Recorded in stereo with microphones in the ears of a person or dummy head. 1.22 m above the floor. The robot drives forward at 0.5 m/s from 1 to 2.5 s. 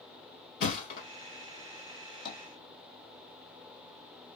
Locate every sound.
0.6 s a thud: 55° left (ahead or behind), 2 m
2.2 s tapping: 80° left, 1.2 m; by 2.4 s 75° left (ahead or behind), 1.2 m